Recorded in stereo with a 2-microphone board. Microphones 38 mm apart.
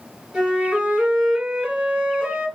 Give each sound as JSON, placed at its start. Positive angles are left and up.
{"t": 0.3, "sound": "a flute", "side_deg": -15, "distance_m": 2.0}